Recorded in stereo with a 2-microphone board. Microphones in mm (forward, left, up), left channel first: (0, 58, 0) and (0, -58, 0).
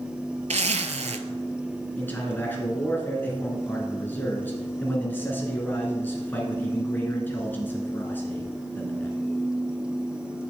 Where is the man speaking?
15° left (ahead or behind), 1.8 m.